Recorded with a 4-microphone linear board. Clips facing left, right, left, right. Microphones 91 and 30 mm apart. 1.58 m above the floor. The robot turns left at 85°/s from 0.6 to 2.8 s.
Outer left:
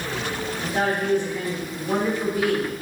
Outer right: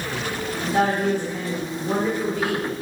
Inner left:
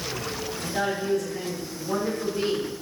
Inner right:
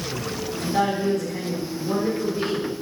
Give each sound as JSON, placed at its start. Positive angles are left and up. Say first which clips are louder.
{"t": 0.6, "sound": "a woman speaking", "louder": "outer right 4 dB, inner right 5 dB", "azimuth_deg": -50, "distance_m": 3.0}